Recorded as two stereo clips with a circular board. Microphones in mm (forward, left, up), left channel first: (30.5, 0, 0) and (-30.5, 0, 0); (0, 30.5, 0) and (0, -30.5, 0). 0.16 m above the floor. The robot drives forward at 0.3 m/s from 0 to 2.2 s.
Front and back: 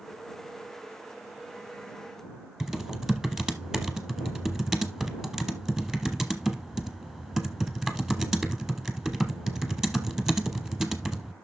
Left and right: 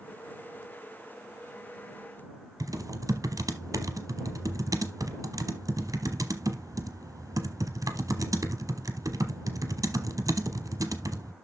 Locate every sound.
2.6 s typing on a keyboard: 100° right, 0.9 m